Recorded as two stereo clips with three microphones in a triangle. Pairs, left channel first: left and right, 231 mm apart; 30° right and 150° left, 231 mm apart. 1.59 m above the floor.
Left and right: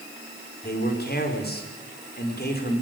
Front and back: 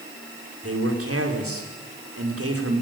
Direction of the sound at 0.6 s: 135° left.